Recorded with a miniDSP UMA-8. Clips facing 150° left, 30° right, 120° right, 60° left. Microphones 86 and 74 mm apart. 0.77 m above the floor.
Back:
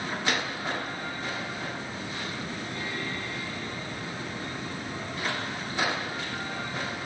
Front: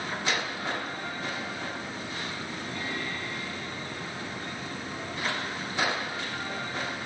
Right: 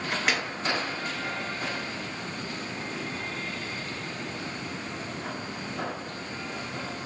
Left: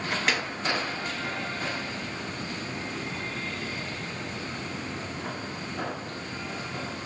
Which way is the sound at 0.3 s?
155° left.